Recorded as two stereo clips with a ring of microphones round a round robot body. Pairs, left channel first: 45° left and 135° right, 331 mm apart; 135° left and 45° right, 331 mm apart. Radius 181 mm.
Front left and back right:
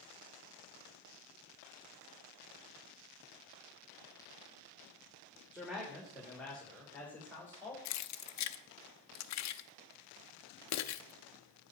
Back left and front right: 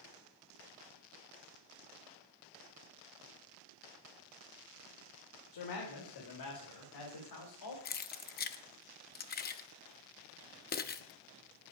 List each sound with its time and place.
5.5 s a man speaking: 140° left, 3 m; by 7.8 s 130° left, 4 m
7.8 s keys jangling: 75° left, 0.9 m